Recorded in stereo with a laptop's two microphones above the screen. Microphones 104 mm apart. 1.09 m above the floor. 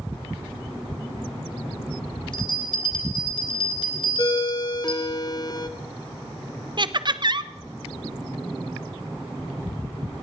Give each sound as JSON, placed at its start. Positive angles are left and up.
{"t": 2.3, "sound": "a bell", "side_deg": 50, "distance_m": 1.7}
{"t": 4.2, "sound": "a ringtone", "side_deg": 40, "distance_m": 1.1}
{"t": 6.8, "sound": "laughter", "side_deg": -45, "distance_m": 0.7}